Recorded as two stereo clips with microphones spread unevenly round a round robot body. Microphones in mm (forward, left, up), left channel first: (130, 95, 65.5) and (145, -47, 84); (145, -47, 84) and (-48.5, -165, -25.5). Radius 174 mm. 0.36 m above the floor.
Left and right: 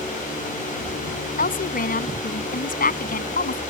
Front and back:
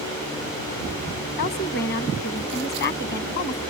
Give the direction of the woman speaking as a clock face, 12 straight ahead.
9 o'clock.